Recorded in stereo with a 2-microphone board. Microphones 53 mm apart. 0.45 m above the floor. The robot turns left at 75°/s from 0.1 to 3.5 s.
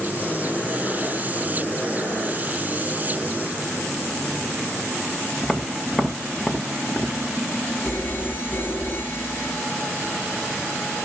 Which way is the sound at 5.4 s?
10° left (ahead or behind).